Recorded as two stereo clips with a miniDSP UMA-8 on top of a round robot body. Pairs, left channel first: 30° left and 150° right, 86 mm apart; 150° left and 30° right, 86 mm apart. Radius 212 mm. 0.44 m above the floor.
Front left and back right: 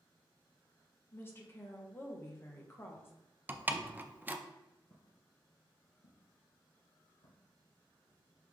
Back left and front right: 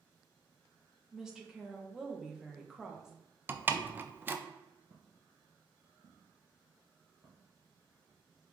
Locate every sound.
1.1 s a woman speaking: 45° left, 1.1 m
3.5 s a door slam: 90° right, 0.6 m
4.9 s footsteps: 25° right, 0.6 m; by 8.2 s 30° left, 2 m